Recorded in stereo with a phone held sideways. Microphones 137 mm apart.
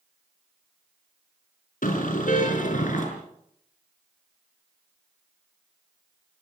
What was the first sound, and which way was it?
A car horn, 80° left.